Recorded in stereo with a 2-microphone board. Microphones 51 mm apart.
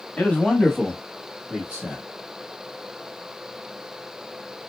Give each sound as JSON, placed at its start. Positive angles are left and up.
{"t": 0.2, "sound": "a man speaking", "side_deg": 30, "distance_m": 1.2}